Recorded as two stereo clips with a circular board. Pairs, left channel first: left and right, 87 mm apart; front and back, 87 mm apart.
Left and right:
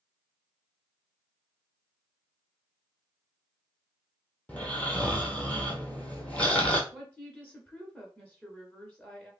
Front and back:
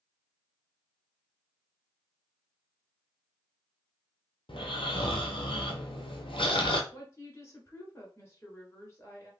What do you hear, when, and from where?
4.5 s snoring: 15° left, 0.9 m
6.9 s a woman speaking: 25° left, 1.5 m